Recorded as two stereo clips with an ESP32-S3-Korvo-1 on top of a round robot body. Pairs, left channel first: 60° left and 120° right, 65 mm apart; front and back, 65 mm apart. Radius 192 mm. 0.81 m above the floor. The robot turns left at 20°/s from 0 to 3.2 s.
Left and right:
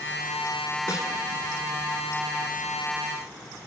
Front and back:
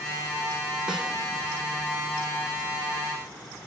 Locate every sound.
0.9 s a snare drum: 100° left, 1.8 m; by 1.1 s 95° left, 1.8 m